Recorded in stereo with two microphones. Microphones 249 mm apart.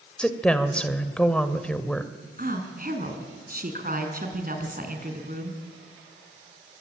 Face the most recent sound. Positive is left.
turn(degrees=-40)  # may be behind; listen again after turning